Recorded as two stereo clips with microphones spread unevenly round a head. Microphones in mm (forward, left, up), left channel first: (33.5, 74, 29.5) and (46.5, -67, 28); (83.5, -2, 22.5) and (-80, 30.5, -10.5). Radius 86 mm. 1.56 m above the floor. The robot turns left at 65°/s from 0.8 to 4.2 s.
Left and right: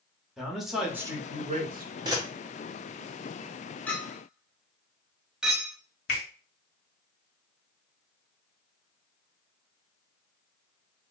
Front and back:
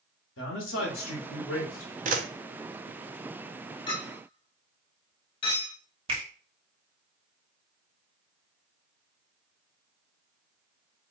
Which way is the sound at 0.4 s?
5° left.